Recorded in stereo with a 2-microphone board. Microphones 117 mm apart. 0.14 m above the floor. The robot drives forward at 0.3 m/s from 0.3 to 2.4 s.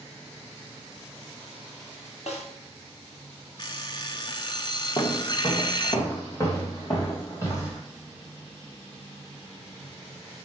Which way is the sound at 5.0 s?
40° left (ahead or behind).